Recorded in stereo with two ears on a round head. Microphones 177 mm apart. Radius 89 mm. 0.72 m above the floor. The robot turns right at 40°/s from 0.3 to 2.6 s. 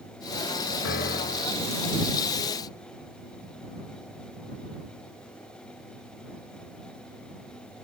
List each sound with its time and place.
0.8 s a piano: 120° left; by 1.7 s 155° left